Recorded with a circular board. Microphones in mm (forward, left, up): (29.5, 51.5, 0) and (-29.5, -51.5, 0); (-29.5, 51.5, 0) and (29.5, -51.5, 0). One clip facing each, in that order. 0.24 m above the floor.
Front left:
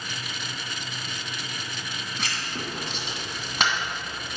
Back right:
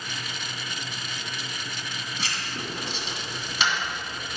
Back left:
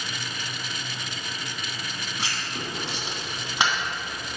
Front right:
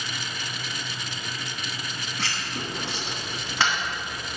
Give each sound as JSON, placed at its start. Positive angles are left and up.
{"t": 2.2, "sound": "writing", "azimuth_deg": 50, "distance_m": 2.5}